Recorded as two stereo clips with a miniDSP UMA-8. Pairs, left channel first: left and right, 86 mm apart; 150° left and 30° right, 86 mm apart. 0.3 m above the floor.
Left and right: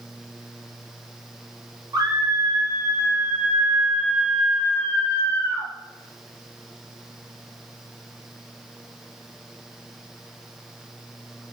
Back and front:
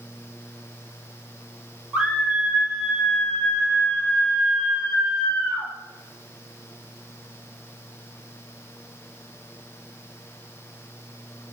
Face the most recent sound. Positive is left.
turn(degrees=95)